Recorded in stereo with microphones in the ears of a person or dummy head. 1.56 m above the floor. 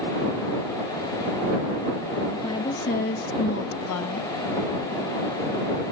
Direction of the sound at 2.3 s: 25° left (ahead or behind).